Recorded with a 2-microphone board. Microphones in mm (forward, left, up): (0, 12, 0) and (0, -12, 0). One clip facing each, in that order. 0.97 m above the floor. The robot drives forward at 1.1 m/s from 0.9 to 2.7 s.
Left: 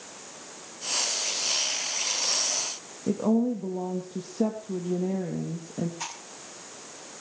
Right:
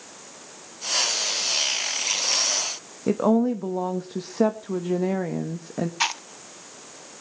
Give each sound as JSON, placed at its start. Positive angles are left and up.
{"t": 3.1, "sound": "a woman speaking", "side_deg": -65, "distance_m": 1.2}
{"t": 6.0, "sound": "chewing", "side_deg": -65, "distance_m": 0.8}